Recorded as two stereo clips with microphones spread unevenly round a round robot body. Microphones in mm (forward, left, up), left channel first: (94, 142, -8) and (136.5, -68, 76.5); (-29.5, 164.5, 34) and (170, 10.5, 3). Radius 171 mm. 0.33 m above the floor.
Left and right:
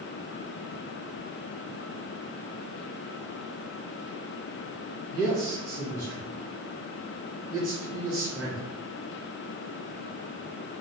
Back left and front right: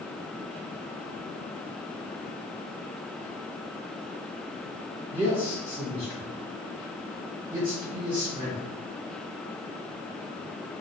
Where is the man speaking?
100° right, 1.8 m.